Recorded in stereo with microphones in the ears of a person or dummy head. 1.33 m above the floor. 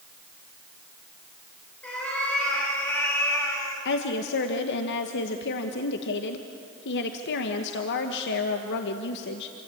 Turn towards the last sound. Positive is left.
turn(degrees=65)  # may be behind; listen again after turning